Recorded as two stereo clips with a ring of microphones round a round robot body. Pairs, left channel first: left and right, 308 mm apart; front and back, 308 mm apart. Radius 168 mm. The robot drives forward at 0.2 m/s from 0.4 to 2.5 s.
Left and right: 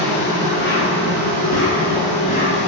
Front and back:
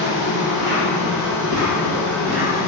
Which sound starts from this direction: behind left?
An insect, at 0.0 s.